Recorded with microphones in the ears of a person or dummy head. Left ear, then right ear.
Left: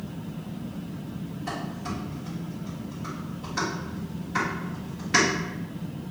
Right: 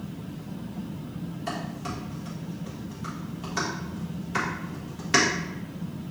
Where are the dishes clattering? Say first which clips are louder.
Even; 25° right (ahead or behind), 1.5 m.